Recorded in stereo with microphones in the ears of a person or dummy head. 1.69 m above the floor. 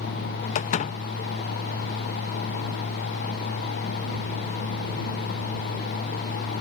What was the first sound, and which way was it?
A door slam, 45° left (ahead or behind).